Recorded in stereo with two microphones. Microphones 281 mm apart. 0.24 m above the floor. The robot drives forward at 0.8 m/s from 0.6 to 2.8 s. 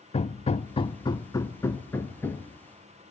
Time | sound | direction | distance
0.1 | hammering | 25° left (ahead or behind) | 0.6 m